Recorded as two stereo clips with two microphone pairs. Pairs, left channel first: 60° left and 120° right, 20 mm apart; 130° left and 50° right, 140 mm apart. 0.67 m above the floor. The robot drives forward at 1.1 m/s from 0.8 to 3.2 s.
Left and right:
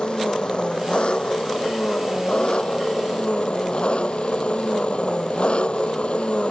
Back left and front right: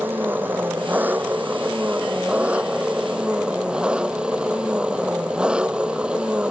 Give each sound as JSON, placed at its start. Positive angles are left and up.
{"t": 0.0, "sound": "an engine running", "azimuth_deg": 25}